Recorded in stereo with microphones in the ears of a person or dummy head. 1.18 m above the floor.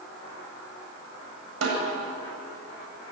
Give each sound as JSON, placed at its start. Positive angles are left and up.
{"t": 1.6, "sound": "a snare drum", "side_deg": -80, "distance_m": 8.0}